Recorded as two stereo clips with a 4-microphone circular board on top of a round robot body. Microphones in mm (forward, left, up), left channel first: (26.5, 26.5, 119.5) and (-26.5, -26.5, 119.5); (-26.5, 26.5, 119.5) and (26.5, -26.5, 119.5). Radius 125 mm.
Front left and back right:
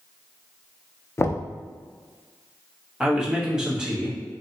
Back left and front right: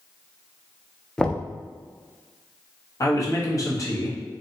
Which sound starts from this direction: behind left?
A man speaking, at 3.0 s.